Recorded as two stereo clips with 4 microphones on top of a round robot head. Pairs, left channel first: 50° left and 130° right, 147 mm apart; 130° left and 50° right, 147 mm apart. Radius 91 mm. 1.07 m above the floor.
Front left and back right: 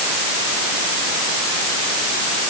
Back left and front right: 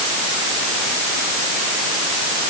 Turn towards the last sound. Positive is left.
No sound to turn to.